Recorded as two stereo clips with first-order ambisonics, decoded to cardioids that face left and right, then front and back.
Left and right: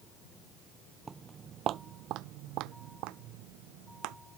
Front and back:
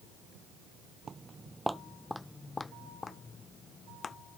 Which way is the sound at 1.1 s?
150° right.